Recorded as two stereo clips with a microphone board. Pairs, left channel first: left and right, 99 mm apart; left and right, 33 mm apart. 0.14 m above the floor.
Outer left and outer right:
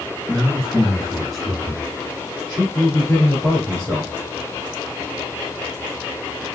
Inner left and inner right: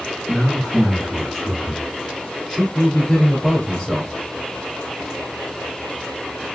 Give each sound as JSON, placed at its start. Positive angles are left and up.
{"t": 0.3, "sound": "a man speaking", "side_deg": 10, "distance_m": 1.4}
{"t": 2.8, "sound": "a man speaking", "side_deg": 10, "distance_m": 2.5}